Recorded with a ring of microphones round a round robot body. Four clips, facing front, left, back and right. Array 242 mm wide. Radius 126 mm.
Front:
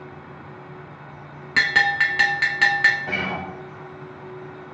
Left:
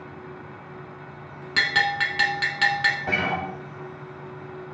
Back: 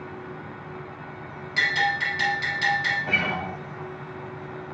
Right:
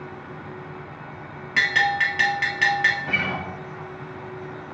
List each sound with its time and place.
1.6 s a bell: 15° left, 1.0 m
3.1 s a guitar: 90° left, 2.5 m